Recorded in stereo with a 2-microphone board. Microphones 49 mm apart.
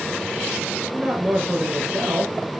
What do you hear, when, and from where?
0.9 s a man speaking: 30° right (ahead or behind), 3 m